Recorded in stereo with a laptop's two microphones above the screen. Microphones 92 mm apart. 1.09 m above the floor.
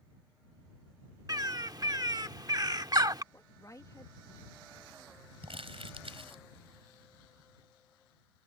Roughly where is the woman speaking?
Left.